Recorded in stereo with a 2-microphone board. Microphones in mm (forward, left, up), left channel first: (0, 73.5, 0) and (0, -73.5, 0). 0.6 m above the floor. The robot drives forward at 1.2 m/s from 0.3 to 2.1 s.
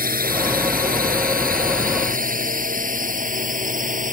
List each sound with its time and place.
0.0 s a drone: 85° right; by 4.1 s 65° right (ahead or behind)